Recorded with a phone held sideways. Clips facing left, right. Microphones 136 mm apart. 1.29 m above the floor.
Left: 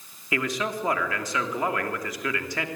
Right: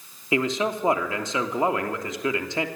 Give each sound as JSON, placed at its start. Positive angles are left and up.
{"t": 0.3, "sound": "a man speaking", "side_deg": -25, "distance_m": 3.0}